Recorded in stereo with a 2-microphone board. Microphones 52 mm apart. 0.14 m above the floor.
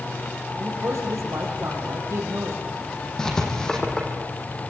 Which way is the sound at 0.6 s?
70° right (ahead or behind).